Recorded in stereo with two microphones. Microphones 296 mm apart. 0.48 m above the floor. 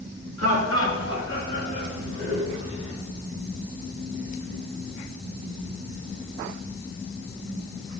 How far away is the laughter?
About 5.5 m.